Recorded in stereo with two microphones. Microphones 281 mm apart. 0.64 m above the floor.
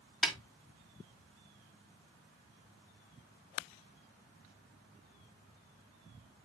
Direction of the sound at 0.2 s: Centre (ahead or behind).